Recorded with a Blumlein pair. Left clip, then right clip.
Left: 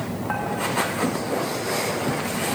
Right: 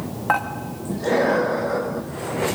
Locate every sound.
0.3 s dishes clattering: 65° right, 2 m